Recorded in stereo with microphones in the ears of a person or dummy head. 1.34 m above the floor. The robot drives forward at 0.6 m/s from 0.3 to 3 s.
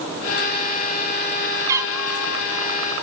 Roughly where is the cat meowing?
Centre.